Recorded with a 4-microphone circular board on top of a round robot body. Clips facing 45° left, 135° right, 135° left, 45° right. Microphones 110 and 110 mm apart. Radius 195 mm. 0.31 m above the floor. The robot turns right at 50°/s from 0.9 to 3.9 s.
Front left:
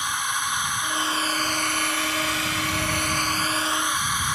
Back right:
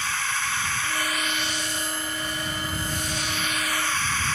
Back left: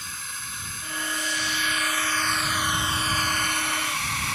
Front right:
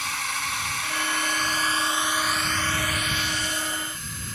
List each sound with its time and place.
0.0 s a drone: 30° right; by 4.4 s 120° left